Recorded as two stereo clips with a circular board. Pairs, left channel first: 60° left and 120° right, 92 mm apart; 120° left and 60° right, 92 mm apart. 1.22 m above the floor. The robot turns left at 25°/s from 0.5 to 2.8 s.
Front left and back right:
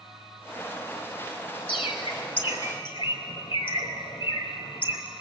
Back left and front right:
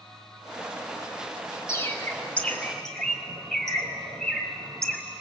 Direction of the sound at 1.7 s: 60° left.